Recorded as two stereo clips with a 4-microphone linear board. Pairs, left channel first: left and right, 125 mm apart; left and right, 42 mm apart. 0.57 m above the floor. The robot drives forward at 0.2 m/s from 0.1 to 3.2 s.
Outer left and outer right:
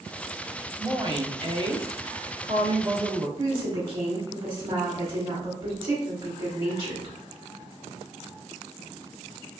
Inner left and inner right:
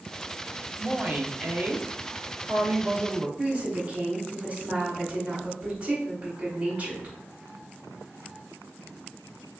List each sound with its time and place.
0.8 s a woman speaking: 40° right (ahead or behind), 0.8 m
3.4 s a woman speaking: 30° right (ahead or behind), 1.2 m